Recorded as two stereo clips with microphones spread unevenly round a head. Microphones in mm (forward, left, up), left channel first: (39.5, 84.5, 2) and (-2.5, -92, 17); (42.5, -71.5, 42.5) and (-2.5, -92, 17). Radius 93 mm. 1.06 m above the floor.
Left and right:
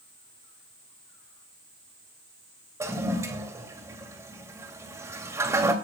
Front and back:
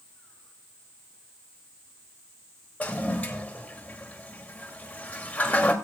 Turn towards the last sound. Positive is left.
turn(degrees=-30)